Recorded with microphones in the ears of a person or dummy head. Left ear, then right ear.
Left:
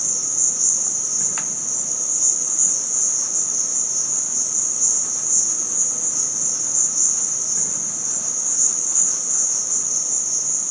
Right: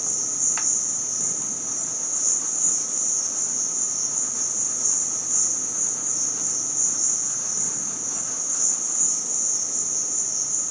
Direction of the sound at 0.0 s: 25° left (ahead or behind).